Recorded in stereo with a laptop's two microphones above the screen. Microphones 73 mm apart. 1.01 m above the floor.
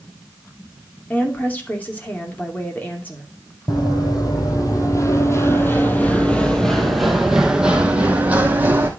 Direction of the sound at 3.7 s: 65° left (ahead or behind).